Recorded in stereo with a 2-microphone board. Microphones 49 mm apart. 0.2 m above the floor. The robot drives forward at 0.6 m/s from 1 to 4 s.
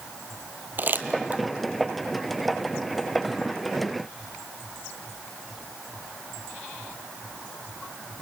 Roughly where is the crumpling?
Right.